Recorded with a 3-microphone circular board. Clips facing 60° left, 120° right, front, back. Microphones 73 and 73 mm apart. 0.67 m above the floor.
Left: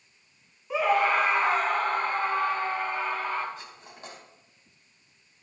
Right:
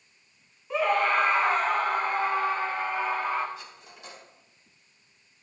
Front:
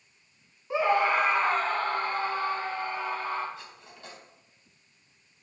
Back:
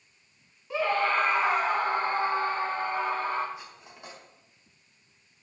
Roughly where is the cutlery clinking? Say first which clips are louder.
Left 1 dB, back 1 dB; left.